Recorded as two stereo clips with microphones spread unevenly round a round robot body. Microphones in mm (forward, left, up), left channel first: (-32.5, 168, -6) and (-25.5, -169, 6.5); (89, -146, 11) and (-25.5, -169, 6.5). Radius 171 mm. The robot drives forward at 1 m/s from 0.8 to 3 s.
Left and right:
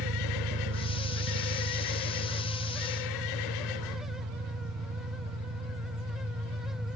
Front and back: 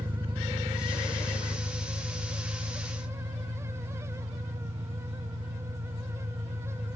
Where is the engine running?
120° right, 2 m; by 7.0 s 150° right, 3.5 m.